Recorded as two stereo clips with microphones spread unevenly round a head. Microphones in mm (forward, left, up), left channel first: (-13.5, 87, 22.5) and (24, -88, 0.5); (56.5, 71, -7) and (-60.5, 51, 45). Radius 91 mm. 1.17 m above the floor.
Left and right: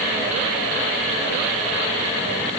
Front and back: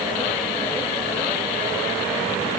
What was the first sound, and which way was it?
Only background noise.